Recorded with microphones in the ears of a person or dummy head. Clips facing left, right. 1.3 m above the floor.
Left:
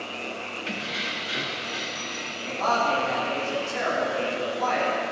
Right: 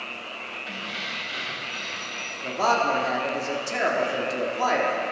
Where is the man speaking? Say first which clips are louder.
Right 2 dB; 75° right (ahead or behind), 3 m.